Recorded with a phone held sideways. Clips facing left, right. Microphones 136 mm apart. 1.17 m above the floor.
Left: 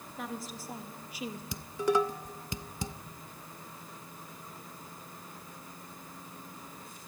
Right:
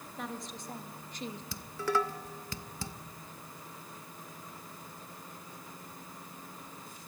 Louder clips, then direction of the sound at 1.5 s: Left 4 dB; 20° left (ahead or behind).